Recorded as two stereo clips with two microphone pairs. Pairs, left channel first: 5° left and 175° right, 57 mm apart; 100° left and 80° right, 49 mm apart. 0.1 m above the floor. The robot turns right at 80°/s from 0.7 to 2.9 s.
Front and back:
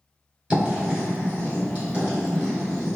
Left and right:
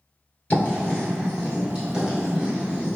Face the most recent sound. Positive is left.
turn(degrees=-45)